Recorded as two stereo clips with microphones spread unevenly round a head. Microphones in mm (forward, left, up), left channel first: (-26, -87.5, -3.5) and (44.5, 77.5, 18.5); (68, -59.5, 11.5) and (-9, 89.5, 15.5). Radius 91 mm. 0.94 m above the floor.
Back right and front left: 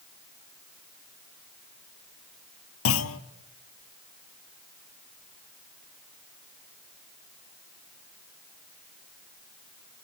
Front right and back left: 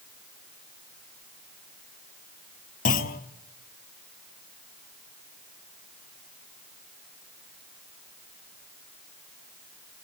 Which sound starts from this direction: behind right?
A clunk, at 2.9 s.